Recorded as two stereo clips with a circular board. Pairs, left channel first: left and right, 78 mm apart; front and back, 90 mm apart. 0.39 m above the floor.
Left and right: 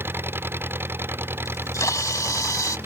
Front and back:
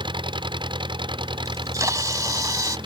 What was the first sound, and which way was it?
An engine running, 150° right.